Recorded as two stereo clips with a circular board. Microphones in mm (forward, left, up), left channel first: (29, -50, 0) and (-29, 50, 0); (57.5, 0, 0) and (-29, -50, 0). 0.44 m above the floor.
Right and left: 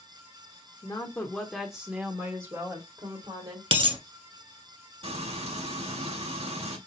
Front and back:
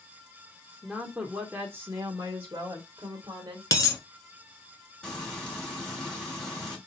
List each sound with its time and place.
0.8 s a woman speaking: 70° right, 0.9 m; by 3.6 s 160° left, 1.6 m
3.7 s a dropped coin: 85° left, 0.9 m
5.0 s frying: 110° left, 2.5 m